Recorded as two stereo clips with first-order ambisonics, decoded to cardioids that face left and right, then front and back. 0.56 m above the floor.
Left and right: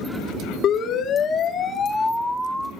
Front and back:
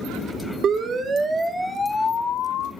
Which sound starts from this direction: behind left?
A siren, at 0.6 s.